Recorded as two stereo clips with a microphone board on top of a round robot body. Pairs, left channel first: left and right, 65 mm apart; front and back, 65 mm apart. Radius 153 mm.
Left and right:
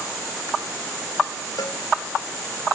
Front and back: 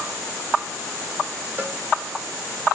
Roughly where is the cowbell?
Behind left.